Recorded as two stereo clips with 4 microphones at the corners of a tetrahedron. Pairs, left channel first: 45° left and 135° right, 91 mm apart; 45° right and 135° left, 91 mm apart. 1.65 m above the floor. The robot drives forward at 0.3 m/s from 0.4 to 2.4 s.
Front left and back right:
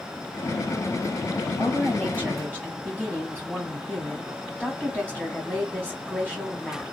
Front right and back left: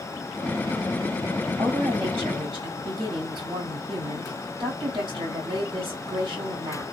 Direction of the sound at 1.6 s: 150° left.